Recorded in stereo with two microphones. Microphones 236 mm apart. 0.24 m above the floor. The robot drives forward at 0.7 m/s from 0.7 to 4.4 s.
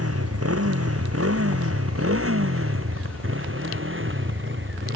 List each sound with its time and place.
0.0 s a motorcycle: 80° right; by 5.0 s 55° right (ahead or behind)